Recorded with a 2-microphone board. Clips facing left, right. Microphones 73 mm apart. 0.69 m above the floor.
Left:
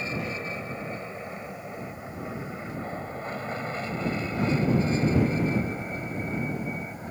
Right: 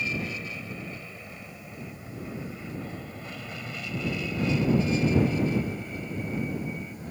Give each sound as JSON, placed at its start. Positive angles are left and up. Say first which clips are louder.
{"t": 0.0, "sound": "an aircraft", "louder": "left 1 dB", "side_deg": 35}